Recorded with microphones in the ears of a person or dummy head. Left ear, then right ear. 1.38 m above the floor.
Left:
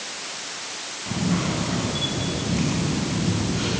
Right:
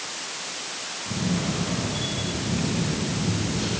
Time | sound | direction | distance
1.1 | a camera shutter | 35° left (ahead or behind) | 5 m